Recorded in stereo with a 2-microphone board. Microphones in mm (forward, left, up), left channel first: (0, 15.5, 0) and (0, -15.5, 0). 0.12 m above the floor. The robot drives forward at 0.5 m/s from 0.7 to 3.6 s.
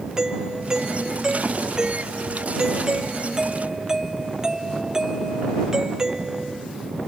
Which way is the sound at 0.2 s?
20° right (ahead or behind).